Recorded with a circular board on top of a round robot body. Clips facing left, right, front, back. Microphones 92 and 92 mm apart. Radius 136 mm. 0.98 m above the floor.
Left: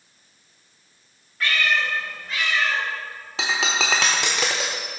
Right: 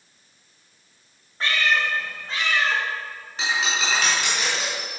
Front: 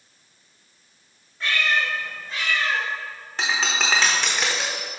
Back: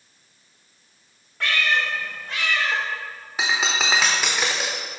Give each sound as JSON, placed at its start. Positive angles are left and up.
{"t": 1.4, "sound": "a cat meowing", "azimuth_deg": -150, "distance_m": 1.9}
{"t": 3.4, "sound": "breaking glass", "azimuth_deg": 95, "distance_m": 0.7}